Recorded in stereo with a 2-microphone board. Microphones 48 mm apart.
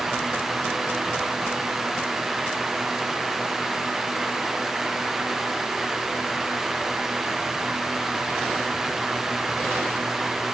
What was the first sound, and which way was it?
Only background noise.